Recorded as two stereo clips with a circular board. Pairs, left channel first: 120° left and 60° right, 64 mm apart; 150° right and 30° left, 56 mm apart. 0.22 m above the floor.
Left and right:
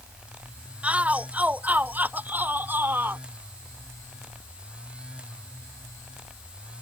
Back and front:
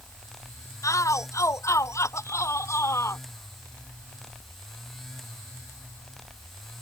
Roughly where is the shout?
Behind right.